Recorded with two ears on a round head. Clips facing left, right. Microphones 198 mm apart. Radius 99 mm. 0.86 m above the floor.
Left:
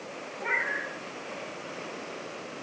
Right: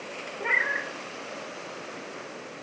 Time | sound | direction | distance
0.4 | a cat meowing | 45° right (ahead or behind) | 1.6 m